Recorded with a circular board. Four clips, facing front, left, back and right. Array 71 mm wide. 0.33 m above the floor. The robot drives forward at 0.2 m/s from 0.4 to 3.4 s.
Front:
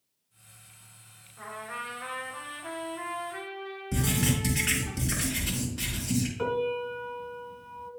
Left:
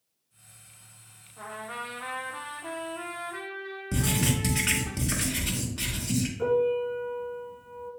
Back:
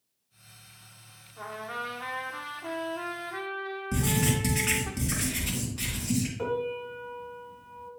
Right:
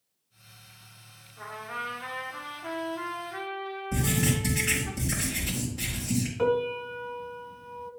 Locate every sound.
1.4 s a trumpet: 145° left, 1.9 m; by 4.9 s 155° left, 2 m
3.9 s writing: 110° left, 3 m
6.4 s a piano: 75° right, 0.9 m